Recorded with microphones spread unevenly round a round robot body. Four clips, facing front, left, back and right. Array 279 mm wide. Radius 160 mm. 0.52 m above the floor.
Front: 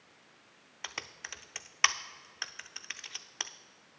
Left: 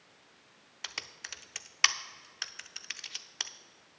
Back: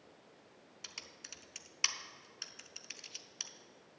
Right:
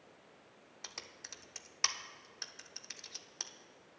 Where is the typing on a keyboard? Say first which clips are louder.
Left 7 dB, front 13 dB; 20° left, 0.6 m.